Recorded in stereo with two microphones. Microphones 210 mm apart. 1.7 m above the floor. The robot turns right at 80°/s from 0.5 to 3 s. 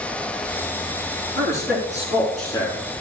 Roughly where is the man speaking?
Right.